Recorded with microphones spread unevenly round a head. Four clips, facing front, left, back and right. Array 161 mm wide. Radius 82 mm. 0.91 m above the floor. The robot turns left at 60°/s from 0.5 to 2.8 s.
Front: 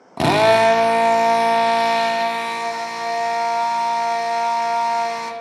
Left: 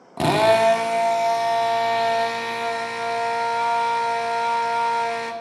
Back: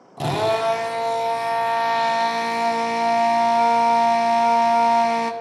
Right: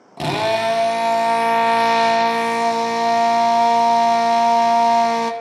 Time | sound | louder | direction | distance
0.2 | a drill | left 3 dB, front 7 dB | 20° left | 1.1 m